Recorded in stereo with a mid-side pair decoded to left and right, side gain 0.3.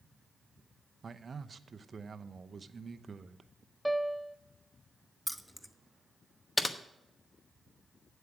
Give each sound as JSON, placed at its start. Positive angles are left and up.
{"t": 1.0, "sound": "a man speaking", "azimuth_deg": -50, "distance_m": 0.7}
{"t": 3.9, "sound": "a piano", "azimuth_deg": 0, "distance_m": 0.6}
{"t": 5.3, "sound": "keys jangling", "azimuth_deg": 10, "distance_m": 0.8}
{"t": 6.6, "sound": "typing on a keyboard", "azimuth_deg": 25, "distance_m": 1.0}